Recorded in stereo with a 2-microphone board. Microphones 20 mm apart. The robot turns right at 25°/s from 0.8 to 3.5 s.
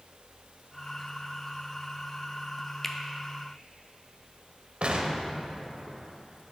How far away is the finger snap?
About 0.6 m.